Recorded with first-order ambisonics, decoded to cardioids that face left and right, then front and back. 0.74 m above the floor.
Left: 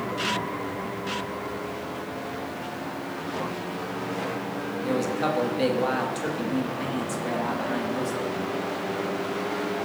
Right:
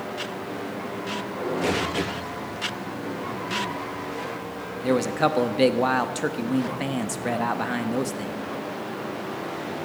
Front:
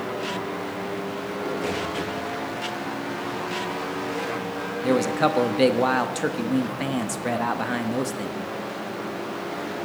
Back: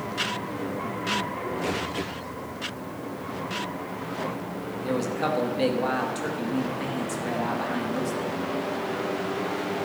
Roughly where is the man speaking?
Ahead right.